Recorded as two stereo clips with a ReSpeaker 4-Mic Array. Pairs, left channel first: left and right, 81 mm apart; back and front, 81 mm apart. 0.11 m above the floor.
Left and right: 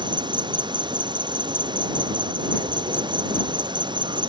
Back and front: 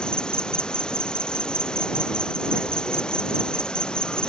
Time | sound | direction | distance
0.0 | an insect | 100° right | ?